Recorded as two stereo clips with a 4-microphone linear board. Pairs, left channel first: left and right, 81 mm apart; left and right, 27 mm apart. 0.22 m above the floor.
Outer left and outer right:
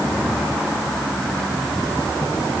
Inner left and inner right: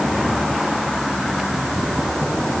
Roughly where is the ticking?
No ticking in this recording.